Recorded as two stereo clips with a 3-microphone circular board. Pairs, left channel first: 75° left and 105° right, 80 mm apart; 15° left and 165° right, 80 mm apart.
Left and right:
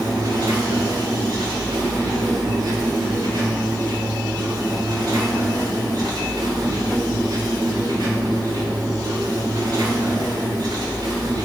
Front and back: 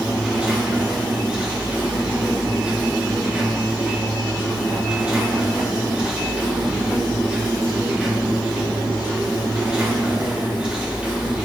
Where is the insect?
90° right, 3.5 m.